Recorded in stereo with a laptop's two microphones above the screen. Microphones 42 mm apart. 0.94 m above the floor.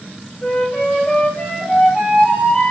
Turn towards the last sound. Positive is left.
turn(degrees=45)  # may be behind; listen again after turning